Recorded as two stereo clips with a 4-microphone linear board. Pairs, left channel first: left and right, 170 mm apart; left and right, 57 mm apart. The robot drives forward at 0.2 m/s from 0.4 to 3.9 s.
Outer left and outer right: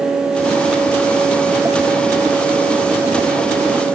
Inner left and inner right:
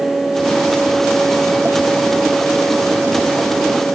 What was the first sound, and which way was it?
Only background noise.